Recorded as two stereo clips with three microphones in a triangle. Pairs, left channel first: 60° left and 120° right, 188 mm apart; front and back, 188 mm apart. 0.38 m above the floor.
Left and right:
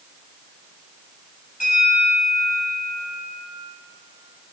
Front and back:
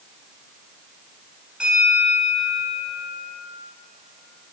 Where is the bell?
95° left, 2.5 m.